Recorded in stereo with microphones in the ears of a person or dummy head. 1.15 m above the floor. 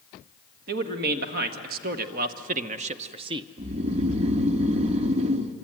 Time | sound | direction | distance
0.7 | a man speaking | 60° right (ahead or behind) | 2 m
3.6 | snoring | 40° right (ahead or behind) | 1.1 m